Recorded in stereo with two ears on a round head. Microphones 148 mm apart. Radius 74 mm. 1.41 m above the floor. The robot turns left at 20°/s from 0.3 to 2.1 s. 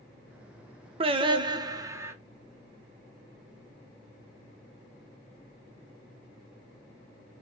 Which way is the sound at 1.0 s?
35° right (ahead or behind).